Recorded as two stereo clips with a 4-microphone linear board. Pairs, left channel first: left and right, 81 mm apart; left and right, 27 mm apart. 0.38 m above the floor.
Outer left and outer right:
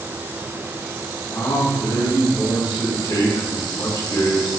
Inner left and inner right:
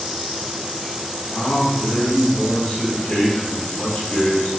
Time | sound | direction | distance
1.3 | a man speaking | 60° left (ahead or behind) | 3 m